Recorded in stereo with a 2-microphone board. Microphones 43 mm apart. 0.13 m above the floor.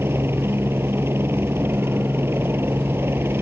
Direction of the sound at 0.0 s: 60° right (ahead or behind).